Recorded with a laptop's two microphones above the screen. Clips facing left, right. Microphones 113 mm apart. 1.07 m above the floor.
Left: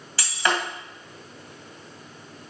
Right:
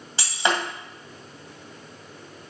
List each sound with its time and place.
0.2 s breaking glass: 25° right (ahead or behind), 2 m